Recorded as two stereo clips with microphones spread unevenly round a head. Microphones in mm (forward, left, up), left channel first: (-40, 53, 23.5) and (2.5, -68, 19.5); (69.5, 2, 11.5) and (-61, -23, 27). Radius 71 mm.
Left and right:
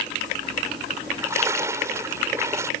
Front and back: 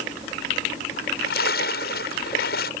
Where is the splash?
Straight ahead.